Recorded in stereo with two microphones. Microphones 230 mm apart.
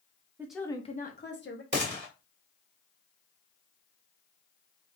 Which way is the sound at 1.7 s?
50° right (ahead or behind).